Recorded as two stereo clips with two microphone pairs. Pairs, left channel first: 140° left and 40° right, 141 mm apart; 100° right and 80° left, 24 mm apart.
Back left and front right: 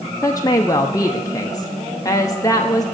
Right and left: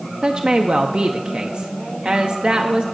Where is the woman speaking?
80° left, 0.6 m.